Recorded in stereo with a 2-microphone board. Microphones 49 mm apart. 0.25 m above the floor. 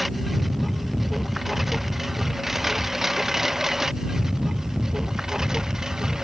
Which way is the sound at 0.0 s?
Centre (ahead or behind).